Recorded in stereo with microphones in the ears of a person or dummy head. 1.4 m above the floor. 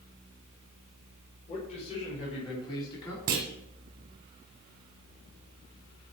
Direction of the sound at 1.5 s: 35° left (ahead or behind).